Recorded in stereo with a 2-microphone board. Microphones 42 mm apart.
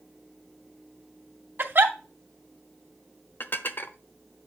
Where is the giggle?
55° right (ahead or behind), 2 m.